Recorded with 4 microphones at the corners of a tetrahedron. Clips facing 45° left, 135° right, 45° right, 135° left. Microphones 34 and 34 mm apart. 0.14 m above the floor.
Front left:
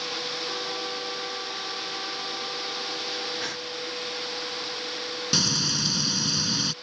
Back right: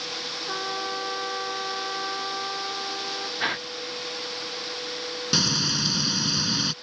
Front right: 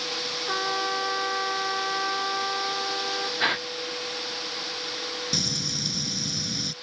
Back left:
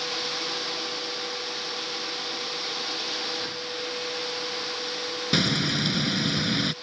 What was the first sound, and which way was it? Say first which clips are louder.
A trumpet: back right 2 dB, front right 4 dB; 75° right.